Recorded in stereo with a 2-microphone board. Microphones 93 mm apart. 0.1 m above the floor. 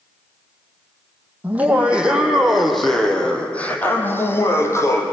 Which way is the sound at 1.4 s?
15° right (ahead or behind).